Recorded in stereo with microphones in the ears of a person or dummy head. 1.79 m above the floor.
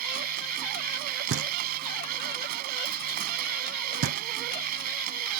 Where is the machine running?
55° right (ahead or behind).